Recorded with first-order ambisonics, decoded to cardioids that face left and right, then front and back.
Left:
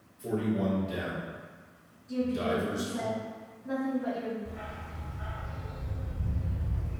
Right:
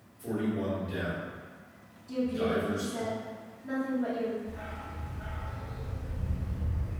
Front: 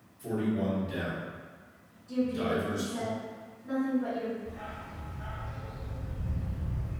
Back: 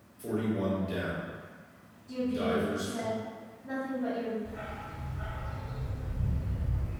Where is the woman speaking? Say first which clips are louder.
Even, even; 85° right, 1.0 m.